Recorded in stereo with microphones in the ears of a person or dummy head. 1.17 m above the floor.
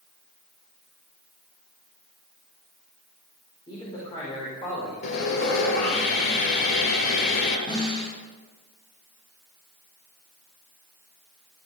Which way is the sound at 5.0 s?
55° left (ahead or behind).